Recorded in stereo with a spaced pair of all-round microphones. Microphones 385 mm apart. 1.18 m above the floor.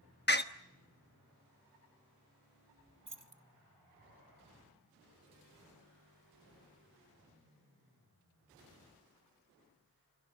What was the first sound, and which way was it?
A door slam, 25° left (ahead or behind).